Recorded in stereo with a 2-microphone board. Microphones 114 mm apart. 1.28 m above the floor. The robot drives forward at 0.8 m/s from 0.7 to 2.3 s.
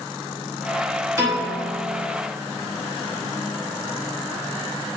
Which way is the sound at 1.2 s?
30° right (ahead or behind).